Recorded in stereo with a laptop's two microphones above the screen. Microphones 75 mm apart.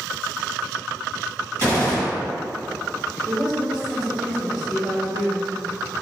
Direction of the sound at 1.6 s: 35° left (ahead or behind).